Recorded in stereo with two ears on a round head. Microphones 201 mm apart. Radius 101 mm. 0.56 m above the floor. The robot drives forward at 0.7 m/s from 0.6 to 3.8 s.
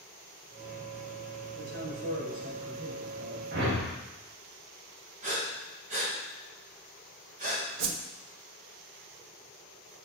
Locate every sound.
1.5 s a man speaking: 50° right (ahead or behind), 2.5 m; by 3.4 s 35° right (ahead or behind), 3.5 m
3.5 s a whoosh: 50° right (ahead or behind), 1.3 m; by 3.9 s 55° right (ahead or behind), 1.2 m
5.2 s breathing: 40° right (ahead or behind), 2.5 m
7.8 s a whoosh: 60° right (ahead or behind), 0.7 m